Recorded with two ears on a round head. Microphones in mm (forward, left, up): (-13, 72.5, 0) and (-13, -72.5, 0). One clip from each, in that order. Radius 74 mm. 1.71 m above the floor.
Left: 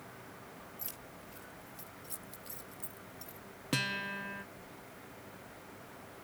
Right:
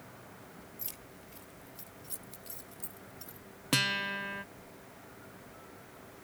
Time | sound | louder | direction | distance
0.8 | keys jangling | even | 5° right (ahead or behind) | ?
3.7 | a guitar | right 5 dB | 30° right (ahead or behind) | ?